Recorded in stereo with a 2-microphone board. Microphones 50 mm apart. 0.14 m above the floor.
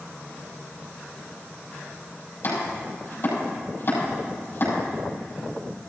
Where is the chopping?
45° left (ahead or behind), 5.5 m.